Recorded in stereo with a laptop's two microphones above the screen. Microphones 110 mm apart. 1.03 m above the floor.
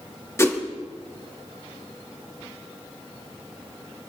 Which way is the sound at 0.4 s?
25° left (ahead or behind).